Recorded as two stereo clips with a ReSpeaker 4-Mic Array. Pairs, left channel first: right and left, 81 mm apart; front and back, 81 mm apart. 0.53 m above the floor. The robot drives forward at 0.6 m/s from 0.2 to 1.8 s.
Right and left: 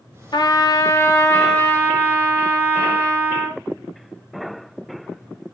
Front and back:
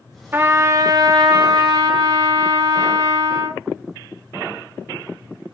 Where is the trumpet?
115° right, 0.7 m; by 3.6 s 155° right, 1.3 m.